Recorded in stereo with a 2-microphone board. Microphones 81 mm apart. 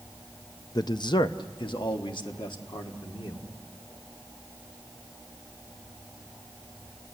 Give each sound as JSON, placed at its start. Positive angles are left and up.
{"t": 0.8, "sound": "a man speaking", "side_deg": 55, "distance_m": 0.5}